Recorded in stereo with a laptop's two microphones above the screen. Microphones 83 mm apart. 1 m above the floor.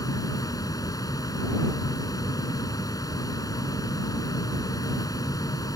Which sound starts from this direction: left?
A fan, at 0.0 s.